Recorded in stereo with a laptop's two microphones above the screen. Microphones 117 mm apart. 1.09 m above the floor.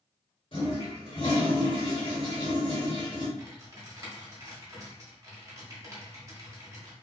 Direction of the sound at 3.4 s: 30° right (ahead or behind).